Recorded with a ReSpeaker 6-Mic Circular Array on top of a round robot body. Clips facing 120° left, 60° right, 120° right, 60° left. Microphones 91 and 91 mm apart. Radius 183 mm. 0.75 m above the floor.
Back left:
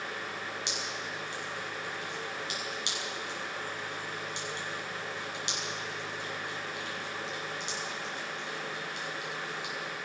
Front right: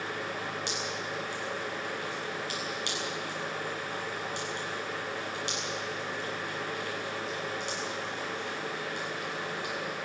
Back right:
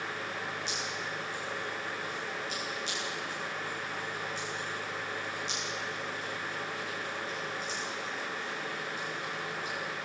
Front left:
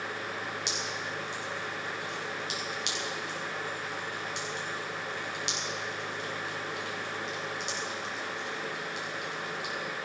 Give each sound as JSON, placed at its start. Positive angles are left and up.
{"t": 0.7, "sound": "dripping", "azimuth_deg": 50, "distance_m": 7.0}